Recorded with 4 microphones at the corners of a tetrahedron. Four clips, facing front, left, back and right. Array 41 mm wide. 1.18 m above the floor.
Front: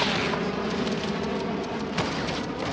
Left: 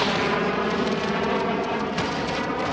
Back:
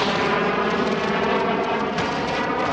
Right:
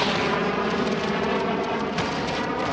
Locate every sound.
0.0 s an aircraft: 175° left